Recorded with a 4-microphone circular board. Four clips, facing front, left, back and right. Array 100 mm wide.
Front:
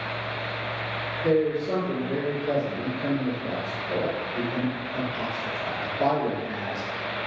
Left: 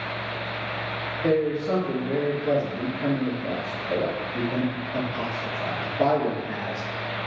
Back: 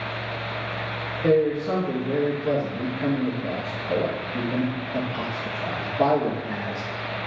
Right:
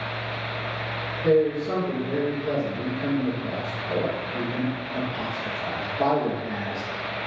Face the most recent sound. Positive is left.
turn(degrees=170)